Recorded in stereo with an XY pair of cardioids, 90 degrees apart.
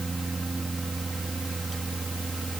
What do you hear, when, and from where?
0.0 s a fan: 20° right